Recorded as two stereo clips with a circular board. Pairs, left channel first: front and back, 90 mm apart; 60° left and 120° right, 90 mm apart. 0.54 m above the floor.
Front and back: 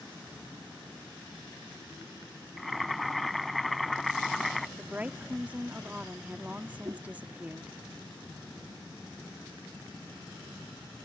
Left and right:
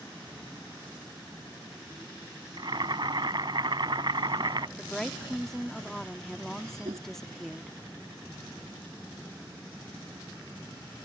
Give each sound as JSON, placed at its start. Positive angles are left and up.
{"t": 2.6, "sound": "boiling", "azimuth_deg": -90}
{"t": 4.8, "sound": "a woman speaking", "azimuth_deg": 135}
{"t": 6.8, "sound": "a whoosh", "azimuth_deg": -125}